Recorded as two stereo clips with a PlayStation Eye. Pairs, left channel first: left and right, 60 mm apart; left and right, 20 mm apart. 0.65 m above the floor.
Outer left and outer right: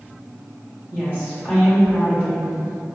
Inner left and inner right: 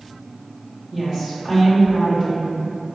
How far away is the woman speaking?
About 1.2 m.